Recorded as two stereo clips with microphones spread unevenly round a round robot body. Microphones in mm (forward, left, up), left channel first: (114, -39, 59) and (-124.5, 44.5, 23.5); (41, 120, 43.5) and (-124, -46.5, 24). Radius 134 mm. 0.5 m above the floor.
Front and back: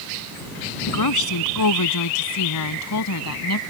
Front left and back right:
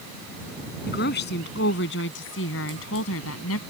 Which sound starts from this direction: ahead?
A woman speaking, at 0.9 s.